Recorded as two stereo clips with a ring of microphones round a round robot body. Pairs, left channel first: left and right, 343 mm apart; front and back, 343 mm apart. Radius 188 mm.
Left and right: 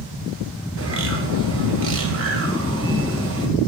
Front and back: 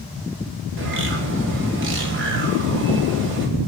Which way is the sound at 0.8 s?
130° right.